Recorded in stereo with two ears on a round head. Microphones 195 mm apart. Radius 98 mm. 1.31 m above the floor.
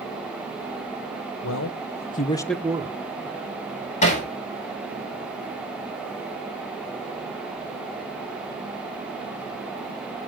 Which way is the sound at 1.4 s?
65° left (ahead or behind).